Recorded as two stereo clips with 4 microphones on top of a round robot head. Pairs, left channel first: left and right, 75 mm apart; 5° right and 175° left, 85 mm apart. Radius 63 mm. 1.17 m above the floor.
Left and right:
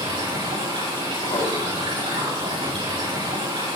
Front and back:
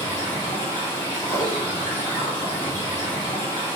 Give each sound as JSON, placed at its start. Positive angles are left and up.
{"t": 0.0, "sound": "running water", "azimuth_deg": -75, "distance_m": 6.5}
{"t": 1.2, "sound": "a whoosh", "azimuth_deg": 55, "distance_m": 5.0}